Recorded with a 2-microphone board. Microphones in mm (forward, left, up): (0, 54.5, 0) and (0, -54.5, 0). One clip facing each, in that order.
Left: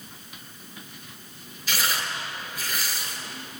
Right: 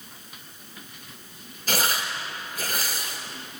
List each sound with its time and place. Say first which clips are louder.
1.7 s tearing paper: right 2 dB; 45° right (ahead or behind), 5.5 m